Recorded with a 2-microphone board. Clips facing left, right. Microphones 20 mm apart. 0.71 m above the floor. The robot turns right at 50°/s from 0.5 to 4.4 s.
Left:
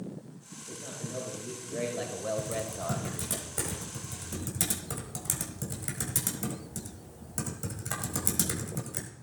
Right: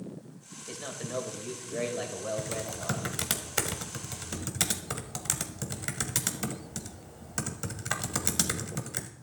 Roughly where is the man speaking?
Right.